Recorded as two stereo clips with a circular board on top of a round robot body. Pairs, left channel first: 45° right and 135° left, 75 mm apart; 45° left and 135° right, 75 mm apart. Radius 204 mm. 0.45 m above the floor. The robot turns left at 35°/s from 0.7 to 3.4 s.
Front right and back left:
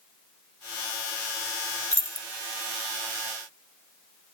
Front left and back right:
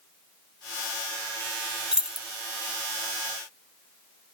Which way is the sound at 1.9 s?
150° left.